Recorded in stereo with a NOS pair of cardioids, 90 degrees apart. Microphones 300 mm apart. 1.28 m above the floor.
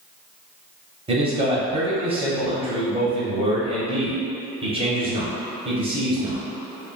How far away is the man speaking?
About 0.8 m.